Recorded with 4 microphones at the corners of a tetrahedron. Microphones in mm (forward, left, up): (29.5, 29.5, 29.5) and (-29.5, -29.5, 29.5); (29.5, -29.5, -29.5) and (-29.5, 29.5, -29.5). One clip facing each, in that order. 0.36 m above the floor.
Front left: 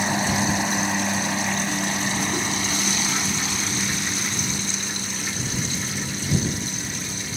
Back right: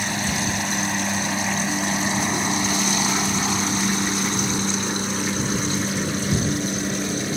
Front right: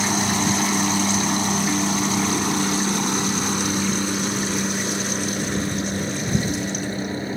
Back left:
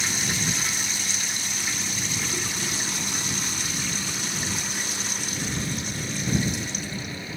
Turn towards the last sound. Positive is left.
turn(degrees=-100)